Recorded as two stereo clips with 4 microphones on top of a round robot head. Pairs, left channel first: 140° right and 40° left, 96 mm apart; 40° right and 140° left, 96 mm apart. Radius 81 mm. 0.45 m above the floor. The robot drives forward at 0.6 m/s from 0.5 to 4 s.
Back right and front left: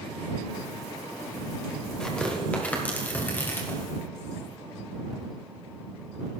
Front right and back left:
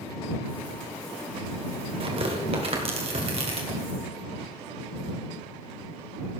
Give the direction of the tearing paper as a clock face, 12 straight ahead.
7 o'clock.